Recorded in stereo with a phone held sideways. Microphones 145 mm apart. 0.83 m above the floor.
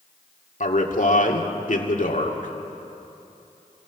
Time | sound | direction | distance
0.6 | a man speaking | 60° left (ahead or behind) | 2 m